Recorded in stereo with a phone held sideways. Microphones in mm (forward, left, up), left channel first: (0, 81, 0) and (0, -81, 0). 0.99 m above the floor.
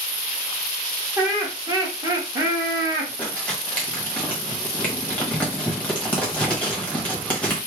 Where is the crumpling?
10° left (ahead or behind), 1.2 m.